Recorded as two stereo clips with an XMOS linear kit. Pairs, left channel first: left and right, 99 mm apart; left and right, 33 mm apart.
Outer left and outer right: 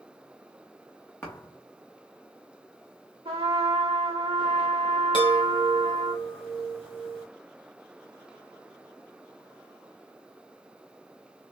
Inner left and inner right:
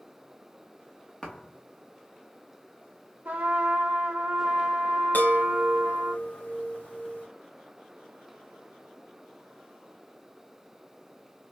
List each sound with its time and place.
1.2 s a thud: 20° left (ahead or behind), 1.7 m
3.2 s a trumpet: 70° right (ahead or behind), 2 m
5.1 s a chime: 60° left (ahead or behind), 2 m